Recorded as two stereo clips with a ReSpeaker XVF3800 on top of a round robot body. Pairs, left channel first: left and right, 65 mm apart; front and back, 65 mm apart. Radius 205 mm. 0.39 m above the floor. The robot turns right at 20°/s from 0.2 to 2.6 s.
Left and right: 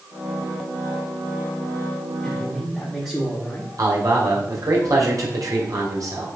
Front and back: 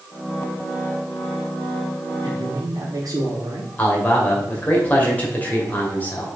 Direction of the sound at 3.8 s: 60° right.